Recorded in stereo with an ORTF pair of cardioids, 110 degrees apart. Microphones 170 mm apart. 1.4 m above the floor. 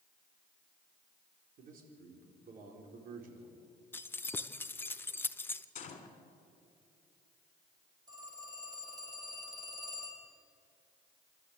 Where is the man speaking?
60° right, 4.5 m.